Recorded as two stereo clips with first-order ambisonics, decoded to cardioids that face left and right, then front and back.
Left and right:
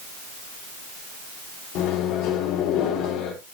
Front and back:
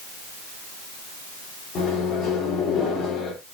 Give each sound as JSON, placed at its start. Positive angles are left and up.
{"t": 1.8, "sound": "a microwave", "azimuth_deg": 55, "distance_m": 3.5}